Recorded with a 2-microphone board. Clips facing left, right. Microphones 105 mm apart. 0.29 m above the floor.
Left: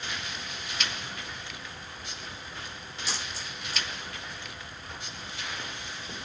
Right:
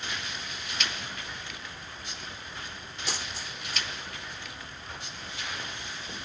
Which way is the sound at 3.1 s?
55° right (ahead or behind).